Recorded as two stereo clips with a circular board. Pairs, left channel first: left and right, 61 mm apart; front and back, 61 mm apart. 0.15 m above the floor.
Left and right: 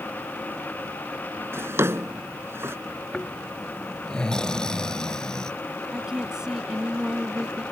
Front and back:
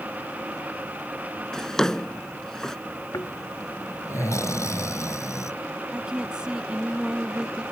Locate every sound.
1.5 s a drawer: 75° right
3.1 s snoring: 15° left
5.9 s a woman speaking: 140° right